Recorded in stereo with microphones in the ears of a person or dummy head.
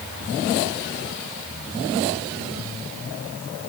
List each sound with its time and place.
Only background noise.